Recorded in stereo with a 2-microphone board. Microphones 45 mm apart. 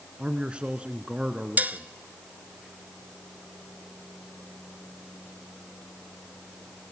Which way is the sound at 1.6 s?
40° right (ahead or behind).